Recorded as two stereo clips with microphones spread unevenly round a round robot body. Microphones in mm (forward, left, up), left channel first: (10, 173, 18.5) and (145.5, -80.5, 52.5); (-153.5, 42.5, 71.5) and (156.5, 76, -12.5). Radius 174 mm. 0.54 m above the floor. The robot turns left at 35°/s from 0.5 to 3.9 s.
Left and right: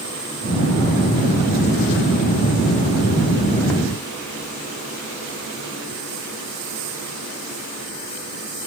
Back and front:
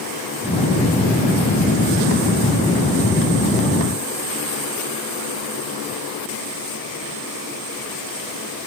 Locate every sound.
Only background noise.